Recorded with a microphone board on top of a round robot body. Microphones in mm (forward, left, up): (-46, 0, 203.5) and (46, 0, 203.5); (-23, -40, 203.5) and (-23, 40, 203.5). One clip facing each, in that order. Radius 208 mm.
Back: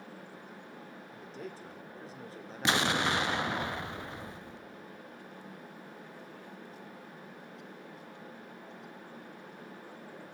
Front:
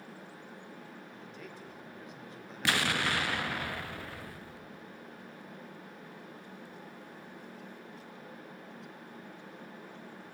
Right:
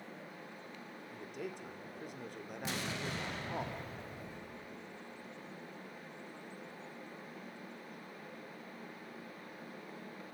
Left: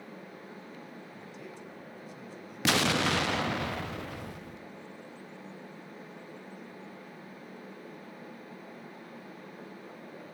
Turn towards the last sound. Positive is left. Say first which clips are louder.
# back 2 dB, left 14 dB
turn(degrees=110)